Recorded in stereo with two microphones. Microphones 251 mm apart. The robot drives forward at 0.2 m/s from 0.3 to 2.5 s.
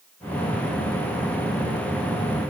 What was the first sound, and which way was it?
Only background noise.